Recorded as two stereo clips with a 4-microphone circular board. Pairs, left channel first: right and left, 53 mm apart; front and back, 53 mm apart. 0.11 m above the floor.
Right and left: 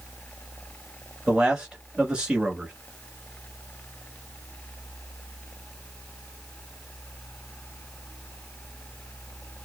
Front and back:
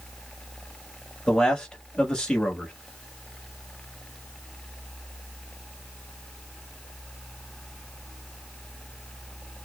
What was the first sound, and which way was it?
A man speaking, 50° left.